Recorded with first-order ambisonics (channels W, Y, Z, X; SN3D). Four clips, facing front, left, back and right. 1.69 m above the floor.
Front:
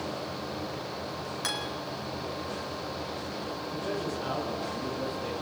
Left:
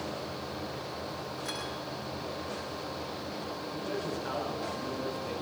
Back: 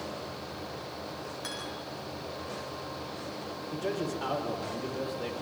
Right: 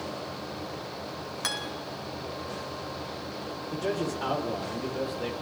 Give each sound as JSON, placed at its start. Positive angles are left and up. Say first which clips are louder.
{"t": 1.4, "sound": "a guitar", "louder": "right 7 dB, front 7 dB", "azimuth_deg": -65, "distance_m": 4.5}
{"t": 3.7, "sound": "a man speaking", "louder": "right 6 dB, back 2 dB", "azimuth_deg": -115, "distance_m": 6.5}